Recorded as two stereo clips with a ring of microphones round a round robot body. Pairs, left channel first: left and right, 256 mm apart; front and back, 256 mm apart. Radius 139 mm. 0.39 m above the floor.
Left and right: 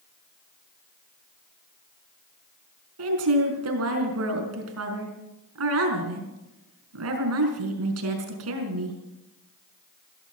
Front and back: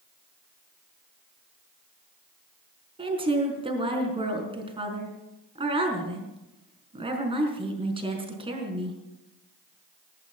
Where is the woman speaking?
110° right, 4.5 m.